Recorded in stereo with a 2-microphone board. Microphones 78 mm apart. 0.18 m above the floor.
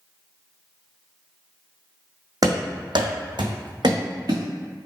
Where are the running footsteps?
50° right (ahead or behind), 0.5 m.